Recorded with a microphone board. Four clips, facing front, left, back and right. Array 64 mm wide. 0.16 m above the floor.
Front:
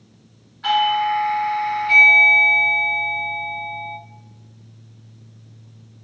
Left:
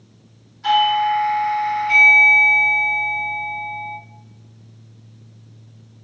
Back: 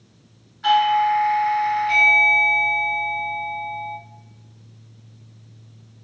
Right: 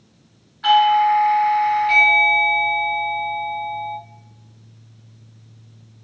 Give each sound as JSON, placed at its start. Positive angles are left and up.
{"t": 0.6, "sound": "a doorbell", "azimuth_deg": -80, "distance_m": 1.9}